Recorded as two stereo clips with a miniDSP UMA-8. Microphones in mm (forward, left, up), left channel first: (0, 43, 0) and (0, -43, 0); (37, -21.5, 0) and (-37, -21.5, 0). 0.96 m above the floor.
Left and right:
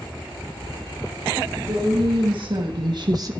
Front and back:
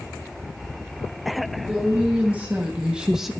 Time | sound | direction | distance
1.7 | a woman speaking | 110° right | 2.5 m